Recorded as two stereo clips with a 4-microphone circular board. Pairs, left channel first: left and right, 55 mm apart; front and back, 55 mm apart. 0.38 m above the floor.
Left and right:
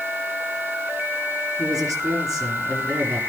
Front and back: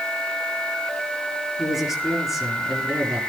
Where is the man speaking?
95° right, 6 m.